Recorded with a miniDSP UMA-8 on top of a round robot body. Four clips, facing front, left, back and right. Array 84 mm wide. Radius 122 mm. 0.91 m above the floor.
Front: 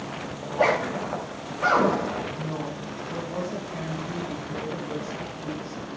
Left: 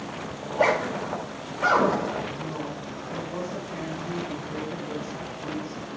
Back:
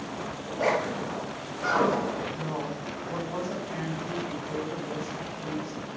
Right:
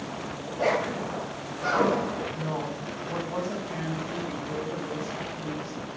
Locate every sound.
0.4 s a zipper: 45° left, 2.5 m
2.3 s a woman speaking: 115° right, 5 m